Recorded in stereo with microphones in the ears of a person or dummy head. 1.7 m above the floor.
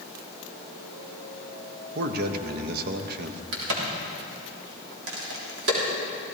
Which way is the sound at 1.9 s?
60° right (ahead or behind).